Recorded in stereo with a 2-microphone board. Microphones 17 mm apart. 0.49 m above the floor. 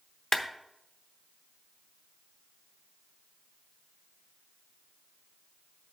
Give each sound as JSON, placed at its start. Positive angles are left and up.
{"t": 0.3, "sound": "a clap", "side_deg": 35, "distance_m": 0.8}